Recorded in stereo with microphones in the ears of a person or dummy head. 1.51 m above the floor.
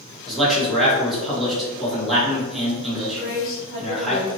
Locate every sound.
0.3 s a man speaking: 5° left (ahead or behind), 1.3 m
3.2 s a woman speaking: 30° left (ahead or behind), 1.6 m